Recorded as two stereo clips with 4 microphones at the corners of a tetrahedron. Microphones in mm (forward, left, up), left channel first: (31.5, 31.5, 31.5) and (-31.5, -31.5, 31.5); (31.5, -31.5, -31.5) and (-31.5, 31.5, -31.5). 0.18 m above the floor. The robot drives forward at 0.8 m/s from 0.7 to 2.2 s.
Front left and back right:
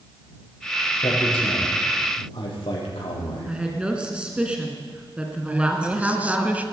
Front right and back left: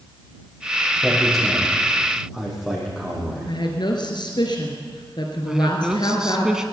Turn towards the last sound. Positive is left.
turn(degrees=-160)